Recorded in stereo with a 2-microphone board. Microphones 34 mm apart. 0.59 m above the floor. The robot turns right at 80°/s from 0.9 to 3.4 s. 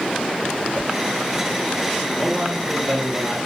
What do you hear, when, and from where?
0.7 s a whoosh: 40° left (ahead or behind), 2.5 m; by 0.9 s 35° left (ahead or behind), 2.5 m
2.1 s a man speaking: 165° left, 3 m; by 3.4 s 95° right, 3 m